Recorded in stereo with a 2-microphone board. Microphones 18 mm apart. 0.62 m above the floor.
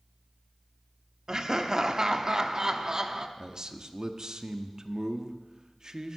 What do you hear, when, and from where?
1.3 s laughter: 35° right (ahead or behind), 0.8 m
3.4 s a man speaking: 40° right (ahead or behind), 0.7 m